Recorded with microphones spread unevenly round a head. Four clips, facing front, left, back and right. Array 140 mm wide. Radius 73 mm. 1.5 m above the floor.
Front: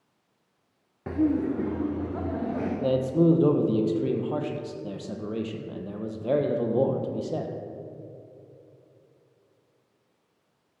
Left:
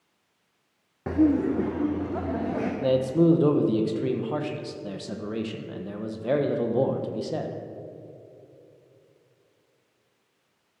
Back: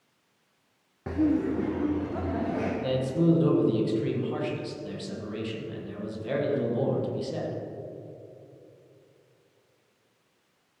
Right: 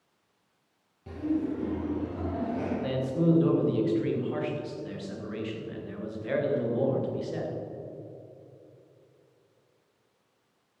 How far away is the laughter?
About 0.5 m.